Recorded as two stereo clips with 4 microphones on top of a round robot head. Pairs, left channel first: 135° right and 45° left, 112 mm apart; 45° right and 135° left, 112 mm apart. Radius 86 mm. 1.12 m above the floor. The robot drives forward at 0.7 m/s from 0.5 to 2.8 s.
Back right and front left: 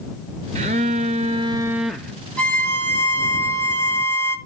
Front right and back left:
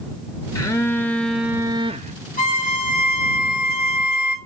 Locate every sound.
0.6 s a phone buzzing: 15° left, 0.9 m; by 2.1 s 150° left, 0.7 m
2.4 s a violin: 55° right, 1.8 m; by 4.4 s 65° right, 1.6 m